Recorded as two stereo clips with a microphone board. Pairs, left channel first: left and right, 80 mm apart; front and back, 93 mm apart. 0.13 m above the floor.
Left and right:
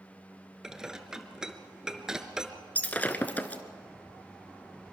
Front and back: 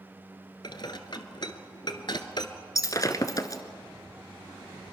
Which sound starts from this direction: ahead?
Dishes clattering, at 0.6 s.